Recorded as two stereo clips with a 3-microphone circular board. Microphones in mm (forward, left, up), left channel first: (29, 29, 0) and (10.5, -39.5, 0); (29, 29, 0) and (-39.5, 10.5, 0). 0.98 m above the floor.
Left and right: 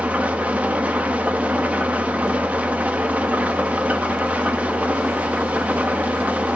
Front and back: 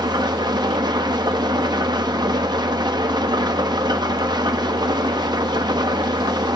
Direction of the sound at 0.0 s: 175° right.